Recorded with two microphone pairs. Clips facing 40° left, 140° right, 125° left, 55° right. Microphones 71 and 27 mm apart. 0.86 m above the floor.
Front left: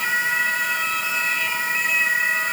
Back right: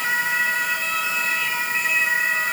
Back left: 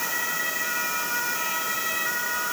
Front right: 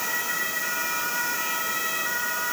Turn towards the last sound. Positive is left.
No sound to turn to.